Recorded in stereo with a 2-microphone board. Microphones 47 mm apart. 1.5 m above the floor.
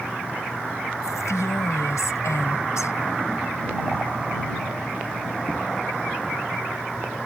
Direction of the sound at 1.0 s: 85° left.